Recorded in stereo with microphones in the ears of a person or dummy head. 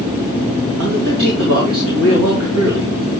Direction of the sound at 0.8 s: 85° right.